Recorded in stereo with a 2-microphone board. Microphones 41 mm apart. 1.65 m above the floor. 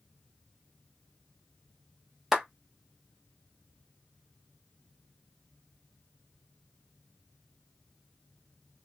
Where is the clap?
5° right (ahead or behind), 1.3 m.